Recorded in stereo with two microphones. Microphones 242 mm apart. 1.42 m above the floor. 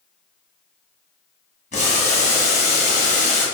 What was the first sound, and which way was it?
Boiling, 30° left (ahead or behind).